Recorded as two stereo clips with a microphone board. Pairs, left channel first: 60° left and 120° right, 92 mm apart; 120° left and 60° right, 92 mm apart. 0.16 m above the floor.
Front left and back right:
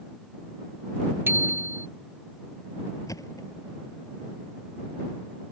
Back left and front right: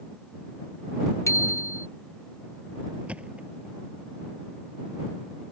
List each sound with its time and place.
1.3 s a bicycle bell: 175° left
3.1 s a thud: 15° left